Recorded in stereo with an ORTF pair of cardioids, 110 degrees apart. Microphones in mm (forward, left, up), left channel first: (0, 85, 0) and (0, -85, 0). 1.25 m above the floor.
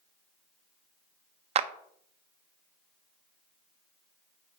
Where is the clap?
40° right, 0.9 m.